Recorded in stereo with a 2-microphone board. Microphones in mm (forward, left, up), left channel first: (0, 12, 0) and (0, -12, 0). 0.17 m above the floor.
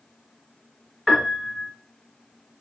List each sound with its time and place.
1.1 s a piano: 10° left (ahead or behind), 2 m